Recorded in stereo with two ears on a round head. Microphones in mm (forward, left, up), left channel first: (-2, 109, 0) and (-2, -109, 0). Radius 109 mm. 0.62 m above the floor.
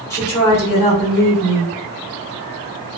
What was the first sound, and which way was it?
A woman speaking, 10° left (ahead or behind).